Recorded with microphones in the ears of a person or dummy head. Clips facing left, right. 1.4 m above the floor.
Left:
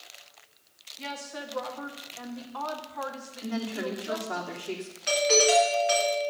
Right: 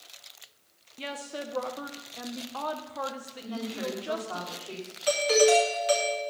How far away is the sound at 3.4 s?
About 3 m.